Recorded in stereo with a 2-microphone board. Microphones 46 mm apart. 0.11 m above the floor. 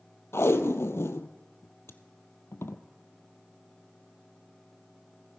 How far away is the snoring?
No snoring in this recording.